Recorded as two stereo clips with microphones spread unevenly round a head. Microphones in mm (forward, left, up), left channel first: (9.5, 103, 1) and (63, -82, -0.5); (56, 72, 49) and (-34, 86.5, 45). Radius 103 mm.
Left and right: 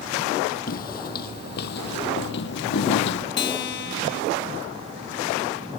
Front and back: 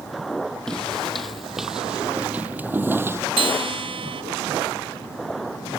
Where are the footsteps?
70° left; by 3.3 s 110° left.